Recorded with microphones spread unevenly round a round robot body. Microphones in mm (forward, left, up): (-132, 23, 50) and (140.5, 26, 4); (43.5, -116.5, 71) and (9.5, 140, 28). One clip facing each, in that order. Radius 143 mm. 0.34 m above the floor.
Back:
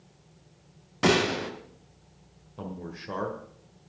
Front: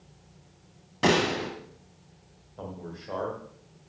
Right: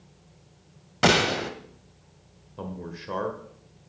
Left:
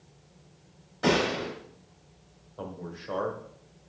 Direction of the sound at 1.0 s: 95° right.